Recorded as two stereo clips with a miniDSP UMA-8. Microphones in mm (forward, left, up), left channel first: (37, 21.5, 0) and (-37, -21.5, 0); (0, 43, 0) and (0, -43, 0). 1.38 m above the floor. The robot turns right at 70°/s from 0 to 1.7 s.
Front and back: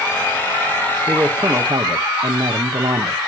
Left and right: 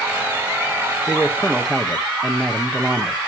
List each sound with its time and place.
1.1 s a man speaking: 140° left, 1.6 m; by 3.2 s 175° right, 1.6 m